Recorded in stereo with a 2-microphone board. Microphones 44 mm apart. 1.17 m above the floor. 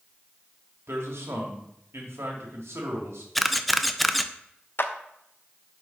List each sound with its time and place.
0.9 s a man speaking: 85° right, 2.5 m
3.4 s a camera shutter: centre (ahead or behind), 0.6 m
4.8 s a clap: 55° left (ahead or behind), 0.8 m